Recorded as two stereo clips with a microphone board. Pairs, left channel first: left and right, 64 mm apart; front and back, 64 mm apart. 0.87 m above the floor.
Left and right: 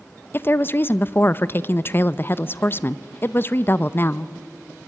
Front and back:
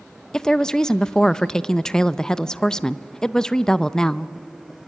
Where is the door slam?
No door slam in this recording.